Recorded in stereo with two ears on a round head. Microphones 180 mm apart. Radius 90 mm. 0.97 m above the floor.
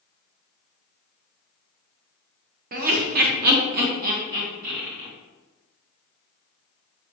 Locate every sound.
2.7 s laughter: 45° right (ahead or behind), 0.8 m; by 5.1 s 40° right (ahead or behind), 1.8 m